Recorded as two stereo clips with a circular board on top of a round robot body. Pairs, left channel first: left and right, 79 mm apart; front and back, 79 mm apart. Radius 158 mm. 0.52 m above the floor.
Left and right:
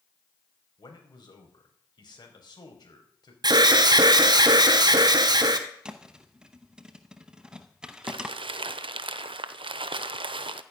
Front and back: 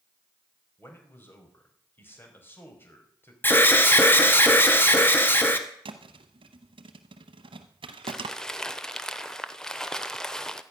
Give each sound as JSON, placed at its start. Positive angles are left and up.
{"t": 0.8, "sound": "a man speaking", "azimuth_deg": 65, "distance_m": 4.5}
{"t": 3.4, "sound": "an alarm", "azimuth_deg": -65, "distance_m": 1.9}
{"t": 5.8, "sound": "a thud", "azimuth_deg": -170, "distance_m": 0.7}
{"t": 8.0, "sound": "crumpling", "azimuth_deg": -85, "distance_m": 0.7}